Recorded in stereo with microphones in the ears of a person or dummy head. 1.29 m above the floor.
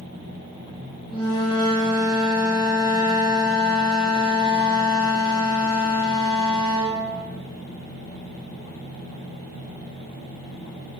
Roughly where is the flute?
Left.